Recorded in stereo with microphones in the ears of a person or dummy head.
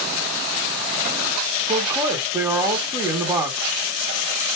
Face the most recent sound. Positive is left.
turn(degrees=-25)  # may be behind; listen again after turning